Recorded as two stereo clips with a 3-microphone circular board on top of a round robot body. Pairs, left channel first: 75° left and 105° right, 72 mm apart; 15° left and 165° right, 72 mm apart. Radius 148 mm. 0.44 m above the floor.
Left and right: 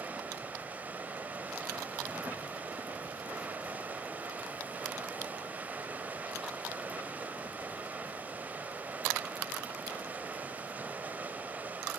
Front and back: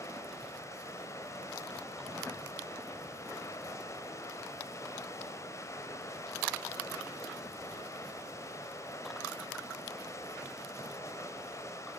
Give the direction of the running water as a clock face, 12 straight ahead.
1 o'clock.